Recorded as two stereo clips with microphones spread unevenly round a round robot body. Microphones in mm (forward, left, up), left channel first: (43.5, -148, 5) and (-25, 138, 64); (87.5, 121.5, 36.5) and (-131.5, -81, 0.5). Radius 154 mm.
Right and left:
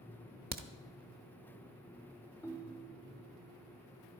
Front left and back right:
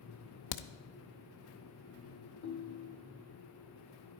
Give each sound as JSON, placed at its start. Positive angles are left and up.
{"t": 0.5, "sound": "a crack", "azimuth_deg": 40, "distance_m": 0.8}
{"t": 2.4, "sound": "a ringtone", "azimuth_deg": -5, "distance_m": 0.9}